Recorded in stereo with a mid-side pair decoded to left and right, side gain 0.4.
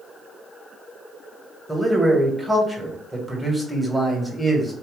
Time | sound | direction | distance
1.7 | a man speaking | 5° right | 1.8 m